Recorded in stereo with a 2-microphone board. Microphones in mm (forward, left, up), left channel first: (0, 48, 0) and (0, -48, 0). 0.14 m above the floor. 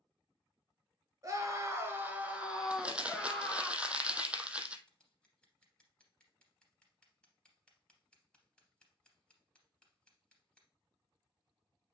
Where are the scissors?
10° left (ahead or behind), 3 m.